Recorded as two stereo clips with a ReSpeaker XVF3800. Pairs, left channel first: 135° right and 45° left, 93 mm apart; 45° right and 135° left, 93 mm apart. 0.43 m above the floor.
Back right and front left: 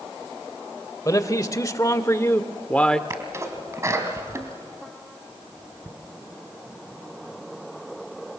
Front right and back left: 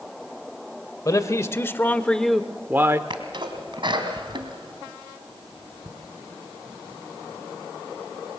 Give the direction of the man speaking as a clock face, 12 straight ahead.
3 o'clock.